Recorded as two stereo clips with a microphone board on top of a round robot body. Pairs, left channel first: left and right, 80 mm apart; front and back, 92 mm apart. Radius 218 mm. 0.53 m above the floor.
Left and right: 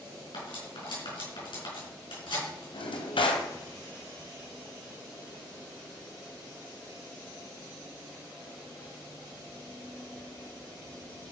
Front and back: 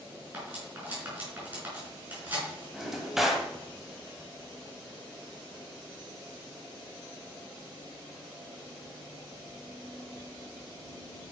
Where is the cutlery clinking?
110° left, 5.5 m.